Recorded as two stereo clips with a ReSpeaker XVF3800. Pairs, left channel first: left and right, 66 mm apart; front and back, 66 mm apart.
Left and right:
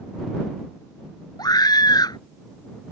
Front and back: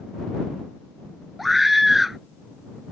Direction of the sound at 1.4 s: 90° left.